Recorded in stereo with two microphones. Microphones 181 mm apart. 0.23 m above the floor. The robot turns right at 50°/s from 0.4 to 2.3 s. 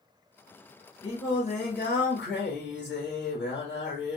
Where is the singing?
35° left, 2.5 m; by 4.2 s 95° left, 2.5 m.